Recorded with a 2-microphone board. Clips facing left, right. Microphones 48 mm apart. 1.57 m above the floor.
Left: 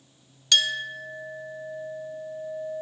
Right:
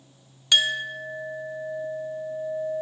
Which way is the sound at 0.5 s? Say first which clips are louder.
Right 2 dB; 15° right (ahead or behind).